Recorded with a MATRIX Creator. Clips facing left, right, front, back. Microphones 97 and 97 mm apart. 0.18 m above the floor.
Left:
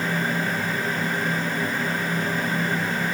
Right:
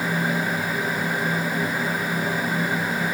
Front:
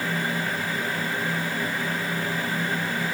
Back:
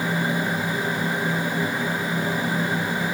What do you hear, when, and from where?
Only background noise.